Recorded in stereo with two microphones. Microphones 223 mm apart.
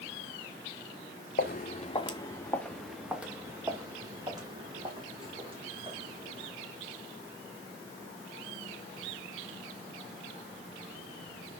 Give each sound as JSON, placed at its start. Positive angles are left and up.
{"t": 1.4, "sound": "footsteps", "side_deg": 45, "distance_m": 1.0}